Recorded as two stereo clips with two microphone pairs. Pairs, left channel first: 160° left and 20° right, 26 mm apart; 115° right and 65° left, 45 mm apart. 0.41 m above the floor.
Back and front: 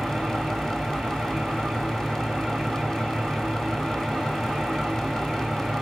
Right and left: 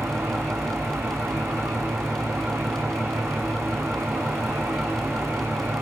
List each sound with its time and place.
0.0 s an engine running: 65° left, 2.5 m